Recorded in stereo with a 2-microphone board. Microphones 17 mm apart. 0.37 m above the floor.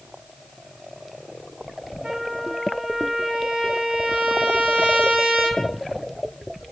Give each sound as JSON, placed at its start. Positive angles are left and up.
{"t": 2.0, "sound": "a trumpet", "side_deg": -70, "distance_m": 9.5}